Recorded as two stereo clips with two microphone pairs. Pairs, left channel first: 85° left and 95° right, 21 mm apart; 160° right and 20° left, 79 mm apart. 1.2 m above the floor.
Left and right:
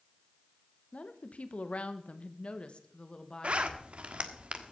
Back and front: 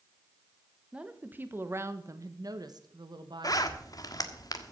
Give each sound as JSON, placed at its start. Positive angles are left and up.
{"t": 0.9, "sound": "a woman speaking", "azimuth_deg": 95, "distance_m": 1.4}
{"t": 3.4, "sound": "a zipper", "azimuth_deg": -125, "distance_m": 1.3}